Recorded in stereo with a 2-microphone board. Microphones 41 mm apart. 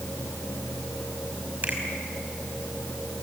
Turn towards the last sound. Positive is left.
turn(degrees=-35)  # may be behind; listen again after turning